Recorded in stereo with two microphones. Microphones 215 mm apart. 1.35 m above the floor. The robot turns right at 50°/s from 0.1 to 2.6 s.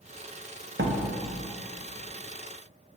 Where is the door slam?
60° right (ahead or behind), 0.7 m; by 1.0 s 55° right (ahead or behind), 0.7 m.